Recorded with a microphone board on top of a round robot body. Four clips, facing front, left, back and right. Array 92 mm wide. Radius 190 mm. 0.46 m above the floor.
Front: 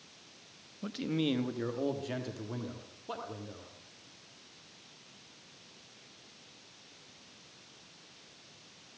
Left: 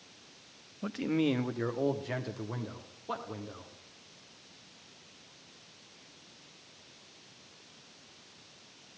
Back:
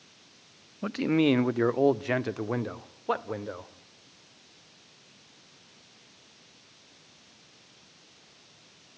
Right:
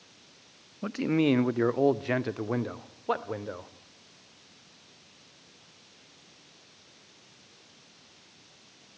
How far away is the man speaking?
About 0.9 m.